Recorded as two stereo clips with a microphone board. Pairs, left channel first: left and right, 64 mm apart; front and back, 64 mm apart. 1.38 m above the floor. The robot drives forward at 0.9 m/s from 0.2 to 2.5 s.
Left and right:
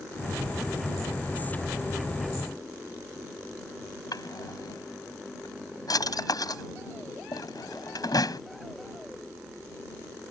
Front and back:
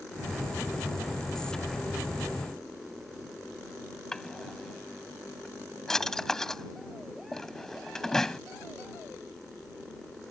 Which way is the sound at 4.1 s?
80° left.